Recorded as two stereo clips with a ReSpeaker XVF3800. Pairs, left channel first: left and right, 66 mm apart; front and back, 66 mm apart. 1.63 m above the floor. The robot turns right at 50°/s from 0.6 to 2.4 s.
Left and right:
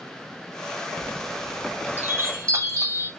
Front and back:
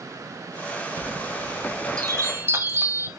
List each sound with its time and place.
1.0 s a chime: 165° left, 0.6 m; by 3.1 s 125° right, 0.6 m